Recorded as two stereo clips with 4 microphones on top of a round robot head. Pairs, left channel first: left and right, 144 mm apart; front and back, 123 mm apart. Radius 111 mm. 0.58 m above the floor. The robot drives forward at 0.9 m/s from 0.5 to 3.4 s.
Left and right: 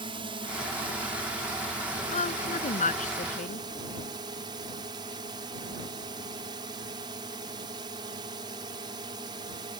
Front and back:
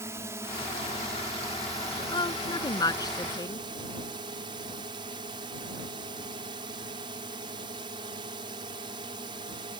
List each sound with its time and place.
0.0 s a drone: 125° right; by 9.8 s 140° right
2.1 s a woman speaking: 55° left; by 3.7 s 60° left